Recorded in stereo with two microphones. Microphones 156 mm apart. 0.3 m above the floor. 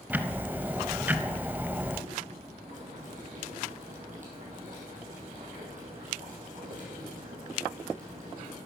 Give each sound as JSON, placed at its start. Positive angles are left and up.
{"t": 0.1, "sound": "ticking", "side_deg": -10, "distance_m": 0.6}
{"t": 2.7, "sound": "boiling", "side_deg": -55, "distance_m": 5.0}